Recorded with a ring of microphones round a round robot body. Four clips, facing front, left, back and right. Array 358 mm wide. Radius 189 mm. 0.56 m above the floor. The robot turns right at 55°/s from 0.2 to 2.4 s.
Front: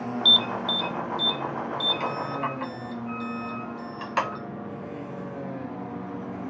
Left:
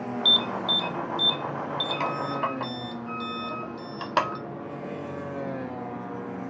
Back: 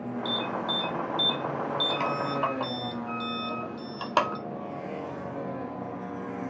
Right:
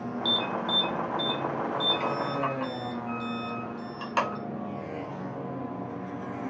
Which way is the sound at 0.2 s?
25° left.